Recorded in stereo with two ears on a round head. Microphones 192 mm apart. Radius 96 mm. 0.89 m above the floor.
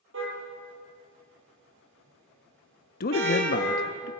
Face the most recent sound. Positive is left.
turn(degrees=45)  # may be behind; listen again after turning